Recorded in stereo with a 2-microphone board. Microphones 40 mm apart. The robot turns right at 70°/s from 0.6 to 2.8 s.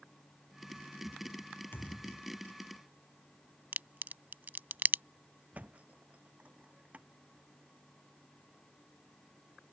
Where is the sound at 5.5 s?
35° right (ahead or behind).